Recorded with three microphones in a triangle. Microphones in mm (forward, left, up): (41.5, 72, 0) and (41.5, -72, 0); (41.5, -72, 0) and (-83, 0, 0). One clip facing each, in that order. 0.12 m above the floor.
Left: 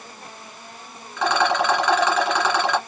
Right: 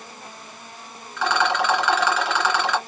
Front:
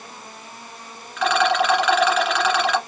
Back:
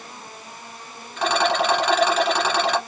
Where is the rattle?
135° left, 1.9 m.